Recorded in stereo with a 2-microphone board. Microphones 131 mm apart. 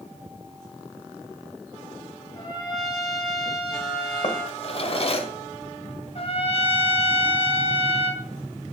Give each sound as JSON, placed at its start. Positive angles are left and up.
{"t": 2.4, "sound": "a trumpet", "side_deg": 30, "distance_m": 4.5}
{"t": 4.2, "sound": "a drawer", "side_deg": 50, "distance_m": 1.1}
{"t": 6.2, "sound": "a trumpet", "side_deg": 45, "distance_m": 1.0}